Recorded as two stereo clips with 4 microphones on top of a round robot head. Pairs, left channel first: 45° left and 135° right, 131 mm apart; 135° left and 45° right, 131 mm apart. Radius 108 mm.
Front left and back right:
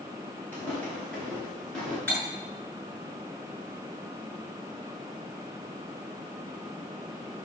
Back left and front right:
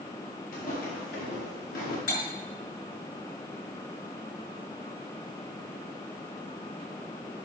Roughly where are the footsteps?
Behind left.